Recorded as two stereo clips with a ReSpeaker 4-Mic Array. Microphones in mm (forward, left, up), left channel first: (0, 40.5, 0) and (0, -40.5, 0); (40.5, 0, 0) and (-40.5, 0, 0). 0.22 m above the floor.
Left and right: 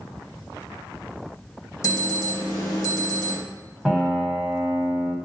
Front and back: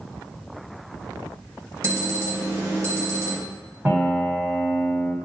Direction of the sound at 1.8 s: 135° left.